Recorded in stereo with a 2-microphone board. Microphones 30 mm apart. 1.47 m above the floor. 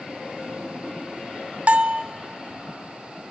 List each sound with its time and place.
1.7 s a bell: 50° right (ahead or behind), 0.5 m